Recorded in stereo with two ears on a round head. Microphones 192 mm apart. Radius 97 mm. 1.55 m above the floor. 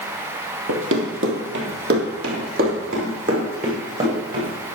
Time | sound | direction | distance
0.7 | running footsteps | 60° right (ahead or behind) | 3 m